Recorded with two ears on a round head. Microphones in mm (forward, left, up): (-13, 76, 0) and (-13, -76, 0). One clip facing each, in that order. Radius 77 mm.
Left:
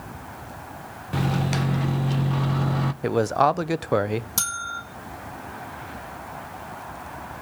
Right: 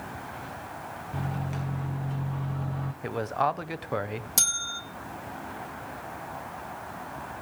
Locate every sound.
1.1 s a microwave: 70° left (ahead or behind), 0.7 m
3.0 s a man speaking: 50° left (ahead or behind), 0.6 m
4.4 s a bell: 20° right (ahead or behind), 1.7 m